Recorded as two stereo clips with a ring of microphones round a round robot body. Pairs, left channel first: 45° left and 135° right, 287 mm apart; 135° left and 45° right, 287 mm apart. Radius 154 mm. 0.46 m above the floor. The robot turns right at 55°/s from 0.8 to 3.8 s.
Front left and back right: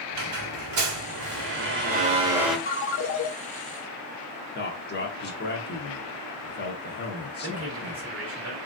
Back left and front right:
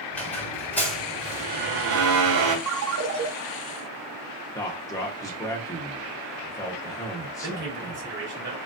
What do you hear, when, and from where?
0.1 s a squeak: 140° right, 1.4 m; by 2.6 s 45° right, 1.4 m
2.7 s a ringtone: 15° right, 0.6 m; by 3.3 s 20° left, 0.6 m
4.5 s a man speaking: 65° left, 0.8 m
7.4 s a man speaking: 95° right, 1.9 m